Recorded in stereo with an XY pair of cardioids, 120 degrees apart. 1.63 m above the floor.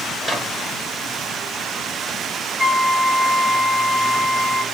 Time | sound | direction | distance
0.2 | a microwave | 10° right | 1.2 m
2.6 | a flute | 10° right | 0.9 m